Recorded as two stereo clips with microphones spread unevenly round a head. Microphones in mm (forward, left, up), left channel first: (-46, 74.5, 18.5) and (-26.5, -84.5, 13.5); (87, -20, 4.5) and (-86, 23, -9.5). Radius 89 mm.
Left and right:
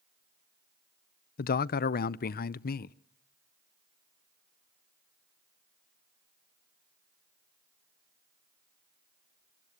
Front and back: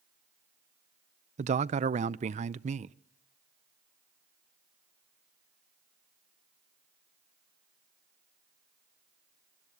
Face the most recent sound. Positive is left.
turn(degrees=120)